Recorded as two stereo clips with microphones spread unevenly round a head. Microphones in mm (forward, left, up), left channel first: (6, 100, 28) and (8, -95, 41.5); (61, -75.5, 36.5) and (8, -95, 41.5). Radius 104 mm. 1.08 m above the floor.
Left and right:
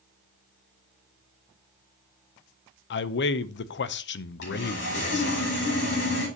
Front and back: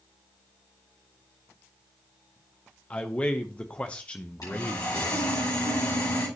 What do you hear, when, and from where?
2.9 s a man speaking: 90° left, 0.7 m
4.4 s sawing: 60° left, 7 m